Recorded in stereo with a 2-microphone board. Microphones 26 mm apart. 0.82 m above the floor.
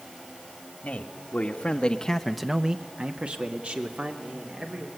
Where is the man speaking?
65° left (ahead or behind), 2 m; by 4.9 s 70° right (ahead or behind), 3.5 m.